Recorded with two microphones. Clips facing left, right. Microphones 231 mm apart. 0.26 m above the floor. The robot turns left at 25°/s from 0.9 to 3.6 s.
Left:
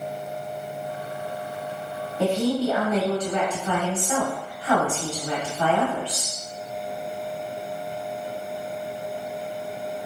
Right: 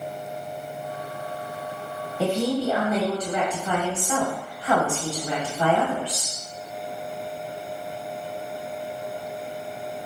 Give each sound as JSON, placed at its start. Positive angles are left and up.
{"t": 2.2, "sound": "a woman speaking", "side_deg": 0, "distance_m": 1.1}